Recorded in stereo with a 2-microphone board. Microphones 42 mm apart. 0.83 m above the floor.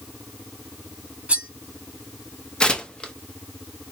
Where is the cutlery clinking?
30° right (ahead or behind), 1.0 m.